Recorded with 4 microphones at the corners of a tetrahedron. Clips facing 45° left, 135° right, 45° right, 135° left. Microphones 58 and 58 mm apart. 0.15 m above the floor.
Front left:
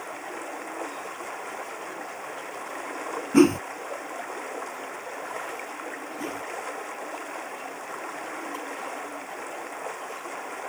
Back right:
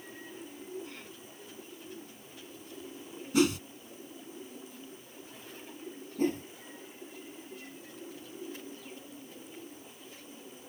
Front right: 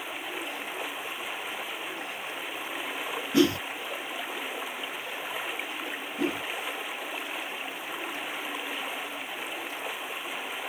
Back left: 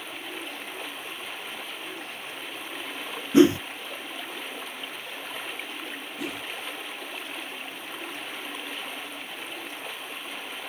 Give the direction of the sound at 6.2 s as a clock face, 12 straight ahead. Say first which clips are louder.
Back right 6 dB, front right 6 dB; 3 o'clock.